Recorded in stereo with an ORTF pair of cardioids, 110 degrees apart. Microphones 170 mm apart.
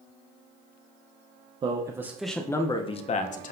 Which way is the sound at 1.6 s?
30° right.